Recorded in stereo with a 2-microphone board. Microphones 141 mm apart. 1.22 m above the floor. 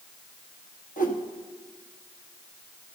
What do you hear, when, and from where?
1.0 s a whoosh: 70° left (ahead or behind), 1.3 m